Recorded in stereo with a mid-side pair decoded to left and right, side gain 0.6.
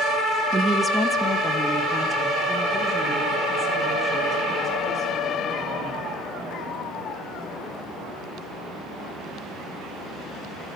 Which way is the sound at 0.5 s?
20° right.